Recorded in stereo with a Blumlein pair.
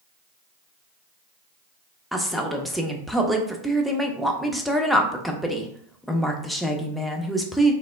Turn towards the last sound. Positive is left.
turn(degrees=0)